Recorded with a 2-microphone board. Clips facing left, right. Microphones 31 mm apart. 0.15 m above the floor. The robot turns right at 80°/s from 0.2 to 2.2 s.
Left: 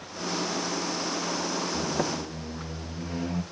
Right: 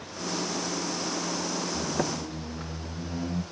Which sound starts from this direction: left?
A squeak, at 1.7 s.